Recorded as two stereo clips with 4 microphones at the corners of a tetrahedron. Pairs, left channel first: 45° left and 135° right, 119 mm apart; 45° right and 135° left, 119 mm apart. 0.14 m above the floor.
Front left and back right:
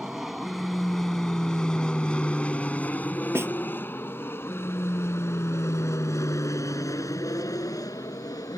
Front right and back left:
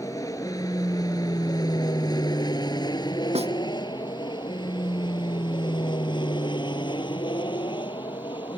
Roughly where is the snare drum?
Behind left.